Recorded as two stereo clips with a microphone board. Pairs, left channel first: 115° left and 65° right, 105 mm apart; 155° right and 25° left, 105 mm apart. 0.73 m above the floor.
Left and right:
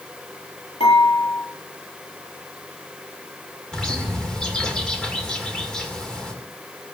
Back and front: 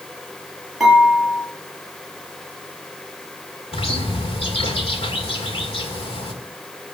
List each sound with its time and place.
0.8 s dishes clattering: 110° left, 10 m
3.7 s a bird: 165° right, 2.5 m